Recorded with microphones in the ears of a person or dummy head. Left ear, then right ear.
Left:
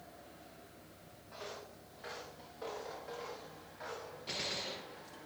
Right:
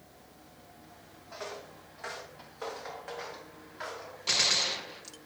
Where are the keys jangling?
I don't hear keys jangling.